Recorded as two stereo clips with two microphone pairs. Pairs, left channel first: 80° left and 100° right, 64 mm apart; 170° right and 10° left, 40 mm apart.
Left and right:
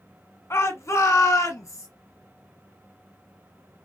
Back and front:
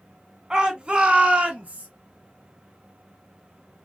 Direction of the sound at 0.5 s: 80° left.